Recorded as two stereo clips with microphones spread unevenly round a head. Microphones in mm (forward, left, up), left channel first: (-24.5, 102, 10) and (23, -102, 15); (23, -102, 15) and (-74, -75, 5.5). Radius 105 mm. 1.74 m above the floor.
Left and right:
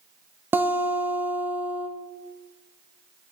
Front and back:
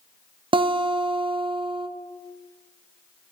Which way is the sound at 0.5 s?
155° right.